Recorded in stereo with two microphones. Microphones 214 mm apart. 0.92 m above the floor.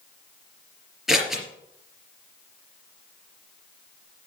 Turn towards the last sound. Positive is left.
turn(degrees=0)  # may be behind; listen again after turning